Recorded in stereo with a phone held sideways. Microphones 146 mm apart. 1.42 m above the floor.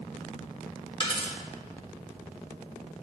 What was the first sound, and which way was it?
A dropped coin, 35° left (ahead or behind).